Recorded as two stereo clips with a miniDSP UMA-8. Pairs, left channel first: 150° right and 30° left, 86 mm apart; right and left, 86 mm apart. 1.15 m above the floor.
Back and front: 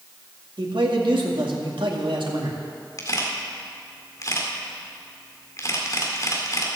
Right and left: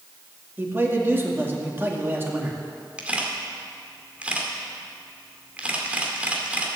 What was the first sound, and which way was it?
A man speaking, 25° left.